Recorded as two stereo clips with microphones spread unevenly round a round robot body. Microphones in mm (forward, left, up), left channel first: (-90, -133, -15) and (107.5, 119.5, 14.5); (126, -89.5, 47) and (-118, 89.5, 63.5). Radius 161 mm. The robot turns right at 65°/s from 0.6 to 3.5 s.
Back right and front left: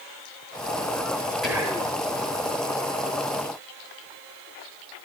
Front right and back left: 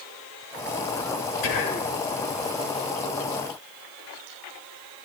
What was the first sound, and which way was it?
Whispering, 40° right.